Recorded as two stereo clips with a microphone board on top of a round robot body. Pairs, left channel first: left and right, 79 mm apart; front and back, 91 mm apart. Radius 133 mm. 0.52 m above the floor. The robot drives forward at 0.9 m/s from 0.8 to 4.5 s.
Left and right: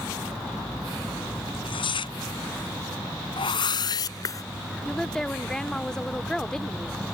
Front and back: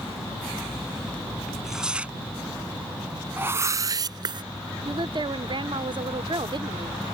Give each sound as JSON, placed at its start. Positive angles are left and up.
{"t": 1.5, "sound": "tearing paper", "azimuth_deg": 90}
{"t": 3.4, "sound": "a whoosh", "azimuth_deg": 110}
{"t": 4.8, "sound": "a woman speaking", "azimuth_deg": 170}